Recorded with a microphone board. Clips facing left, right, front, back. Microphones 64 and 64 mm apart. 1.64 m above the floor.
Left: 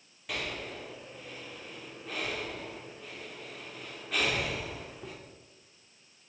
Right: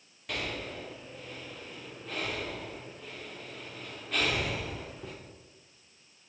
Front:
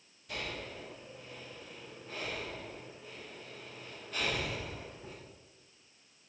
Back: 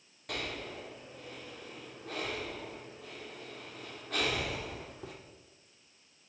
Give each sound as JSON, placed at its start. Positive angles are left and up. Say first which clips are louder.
{"t": 0.3, "sound": "breathing", "louder": "right 1 dB, back 2 dB", "azimuth_deg": 180, "distance_m": 2.5}